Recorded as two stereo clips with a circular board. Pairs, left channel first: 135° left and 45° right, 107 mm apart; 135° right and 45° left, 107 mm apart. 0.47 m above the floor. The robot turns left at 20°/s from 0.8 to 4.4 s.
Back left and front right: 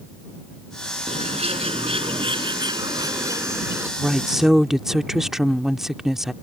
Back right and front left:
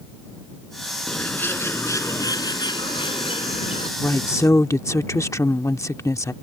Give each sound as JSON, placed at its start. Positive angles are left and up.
{"t": 1.1, "sound": "a bird", "azimuth_deg": -60}
{"t": 4.0, "sound": "a woman speaking", "azimuth_deg": -120}